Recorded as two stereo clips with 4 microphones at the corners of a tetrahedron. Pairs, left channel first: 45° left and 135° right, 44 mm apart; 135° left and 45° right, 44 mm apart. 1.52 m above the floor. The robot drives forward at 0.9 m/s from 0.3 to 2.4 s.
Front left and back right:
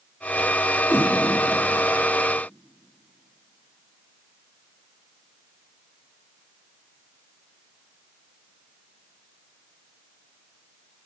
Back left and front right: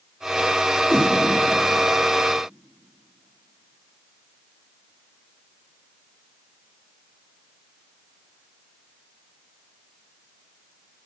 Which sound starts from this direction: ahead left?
A whoosh, at 0.9 s.